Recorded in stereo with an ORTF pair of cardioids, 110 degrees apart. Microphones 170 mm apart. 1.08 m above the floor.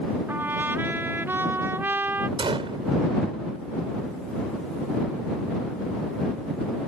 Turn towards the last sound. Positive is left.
turn(degrees=-30)